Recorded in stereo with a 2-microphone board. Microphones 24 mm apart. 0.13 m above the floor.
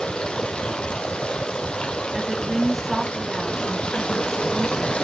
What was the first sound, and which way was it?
Running water, 40° left (ahead or behind).